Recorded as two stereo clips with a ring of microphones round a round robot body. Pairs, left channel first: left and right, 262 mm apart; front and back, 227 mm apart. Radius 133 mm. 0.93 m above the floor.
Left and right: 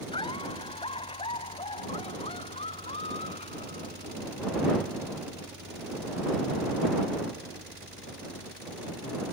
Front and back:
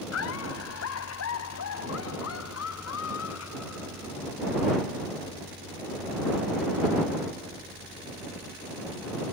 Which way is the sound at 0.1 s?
15° left.